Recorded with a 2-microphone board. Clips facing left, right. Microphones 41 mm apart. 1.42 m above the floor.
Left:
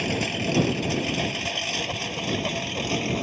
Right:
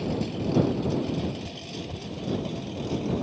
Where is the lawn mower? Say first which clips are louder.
Left 3 dB; 80° left; by 3.2 s 75° left (ahead or behind).